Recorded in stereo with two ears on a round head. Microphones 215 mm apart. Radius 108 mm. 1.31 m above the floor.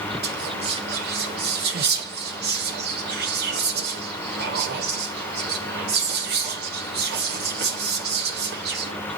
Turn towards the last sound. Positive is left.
turn(degrees=-45)  # may be behind; listen again after turning